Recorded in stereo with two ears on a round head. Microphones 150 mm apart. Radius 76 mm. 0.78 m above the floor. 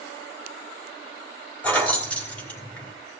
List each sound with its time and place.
1.6 s keys jangling: 10° left (ahead or behind), 2 m